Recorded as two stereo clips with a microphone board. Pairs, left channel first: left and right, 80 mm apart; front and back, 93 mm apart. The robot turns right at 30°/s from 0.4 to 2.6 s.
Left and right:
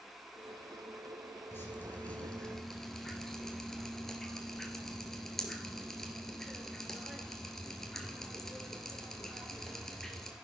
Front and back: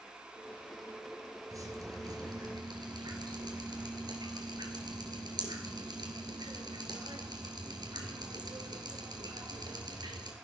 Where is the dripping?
140° left, 2.5 m; by 10.3 s 175° left, 2.5 m.